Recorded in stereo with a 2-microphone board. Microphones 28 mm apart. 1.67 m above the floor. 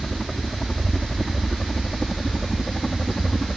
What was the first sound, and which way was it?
A helicopter, 15° left (ahead or behind).